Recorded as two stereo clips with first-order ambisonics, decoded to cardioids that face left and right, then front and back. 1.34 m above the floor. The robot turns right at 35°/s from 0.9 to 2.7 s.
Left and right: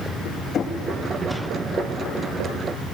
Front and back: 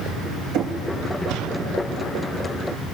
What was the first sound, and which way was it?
Knocking, 150° left.